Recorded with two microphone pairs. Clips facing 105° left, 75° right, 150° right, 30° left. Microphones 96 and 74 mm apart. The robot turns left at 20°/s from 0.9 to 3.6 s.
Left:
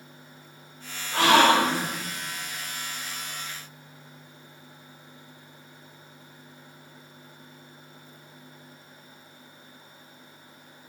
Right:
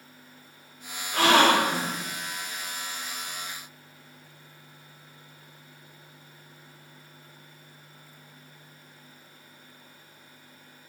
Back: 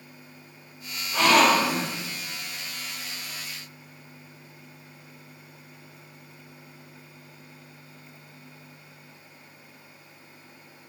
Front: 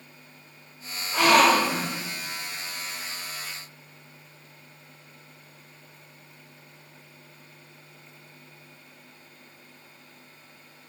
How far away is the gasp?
About 1.9 m.